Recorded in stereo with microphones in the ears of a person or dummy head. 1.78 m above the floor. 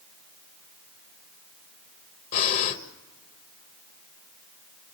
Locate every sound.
2.3 s breathing: 35° left (ahead or behind), 1.3 m